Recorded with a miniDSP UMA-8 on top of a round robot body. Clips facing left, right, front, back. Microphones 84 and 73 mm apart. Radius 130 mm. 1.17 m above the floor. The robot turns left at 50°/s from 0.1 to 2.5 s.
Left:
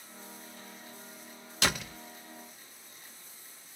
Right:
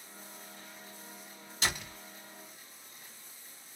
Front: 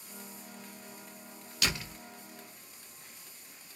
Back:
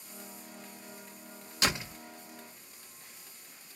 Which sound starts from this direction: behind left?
A door slam, at 1.6 s.